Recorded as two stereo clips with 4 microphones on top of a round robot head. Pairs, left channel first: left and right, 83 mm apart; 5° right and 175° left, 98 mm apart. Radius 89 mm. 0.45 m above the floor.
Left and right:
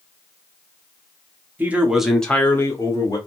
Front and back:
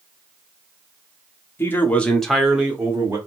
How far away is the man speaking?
About 1.2 m.